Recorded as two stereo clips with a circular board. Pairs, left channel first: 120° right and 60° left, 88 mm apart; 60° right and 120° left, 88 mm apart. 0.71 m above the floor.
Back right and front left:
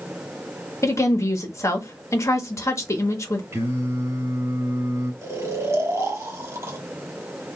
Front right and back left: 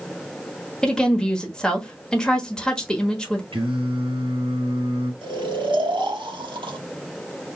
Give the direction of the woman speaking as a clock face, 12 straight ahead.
5 o'clock.